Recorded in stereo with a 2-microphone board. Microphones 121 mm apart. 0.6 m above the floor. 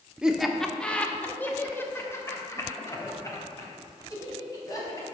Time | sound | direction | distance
0.2 | laughter | 5° right (ahead or behind) | 1.0 m